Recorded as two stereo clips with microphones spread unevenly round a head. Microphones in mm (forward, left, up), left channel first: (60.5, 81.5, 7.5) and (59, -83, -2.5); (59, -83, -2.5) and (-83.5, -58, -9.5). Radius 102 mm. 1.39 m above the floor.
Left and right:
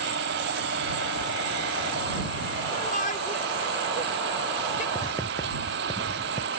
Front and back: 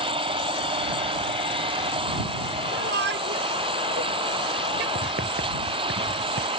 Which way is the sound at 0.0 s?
135° right.